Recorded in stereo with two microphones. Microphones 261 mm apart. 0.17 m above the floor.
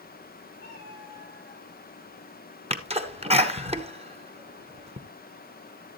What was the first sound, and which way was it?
A cat meowing, 40° left (ahead or behind).